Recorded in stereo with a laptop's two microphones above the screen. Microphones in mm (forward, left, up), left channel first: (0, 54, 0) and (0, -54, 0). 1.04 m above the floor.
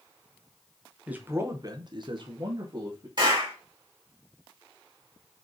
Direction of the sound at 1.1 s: 15° right (ahead or behind).